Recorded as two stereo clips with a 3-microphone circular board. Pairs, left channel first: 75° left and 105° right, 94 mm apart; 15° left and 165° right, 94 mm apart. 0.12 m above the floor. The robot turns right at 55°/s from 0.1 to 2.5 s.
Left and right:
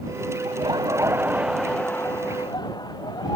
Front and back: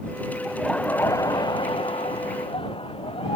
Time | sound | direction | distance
0.5 | laughter | 80° right | ?